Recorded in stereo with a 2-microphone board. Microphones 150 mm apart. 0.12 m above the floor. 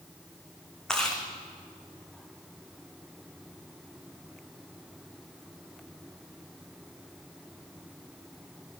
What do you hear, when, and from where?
0.9 s chewing: 5° left (ahead or behind), 3.5 m